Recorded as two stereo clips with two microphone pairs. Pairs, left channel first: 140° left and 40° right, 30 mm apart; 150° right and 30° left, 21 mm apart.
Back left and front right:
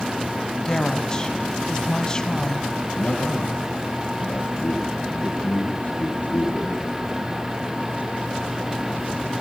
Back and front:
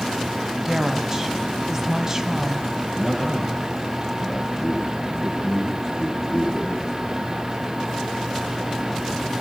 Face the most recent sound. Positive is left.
turn(degrees=105)